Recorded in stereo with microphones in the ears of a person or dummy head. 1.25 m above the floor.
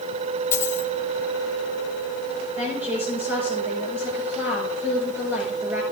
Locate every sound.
0.5 s a dropped coin: 15° left (ahead or behind), 1.6 m
2.6 s a woman speaking: 10° right (ahead or behind), 7 m